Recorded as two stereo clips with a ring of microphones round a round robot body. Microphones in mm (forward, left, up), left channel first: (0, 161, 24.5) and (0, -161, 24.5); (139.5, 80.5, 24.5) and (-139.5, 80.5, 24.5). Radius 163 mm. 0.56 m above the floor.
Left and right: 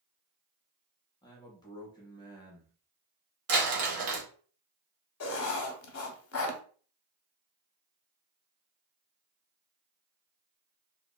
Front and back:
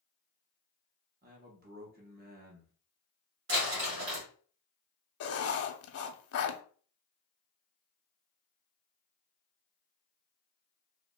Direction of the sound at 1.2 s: 160° left.